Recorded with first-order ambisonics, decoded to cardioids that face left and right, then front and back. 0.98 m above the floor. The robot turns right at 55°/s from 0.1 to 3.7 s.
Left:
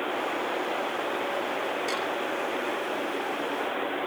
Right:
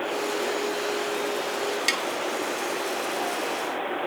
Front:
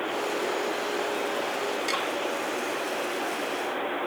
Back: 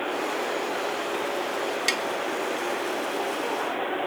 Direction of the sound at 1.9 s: 125° right.